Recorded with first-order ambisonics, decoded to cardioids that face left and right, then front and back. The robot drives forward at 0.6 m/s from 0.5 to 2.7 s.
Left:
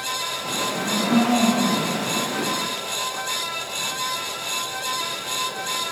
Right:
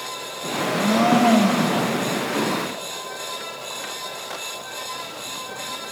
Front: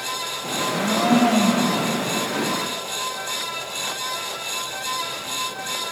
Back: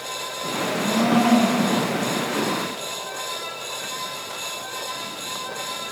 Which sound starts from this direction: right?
A blender, at 0.6 s.